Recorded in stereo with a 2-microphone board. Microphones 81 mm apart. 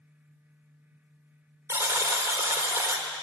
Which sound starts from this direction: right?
A buzzer, at 1.7 s.